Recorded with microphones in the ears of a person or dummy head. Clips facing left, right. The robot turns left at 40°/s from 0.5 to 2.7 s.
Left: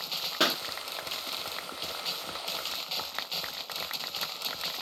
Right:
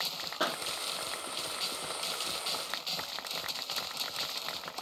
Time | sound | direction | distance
0.4 | a pop | 35° left (ahead or behind) | 0.7 m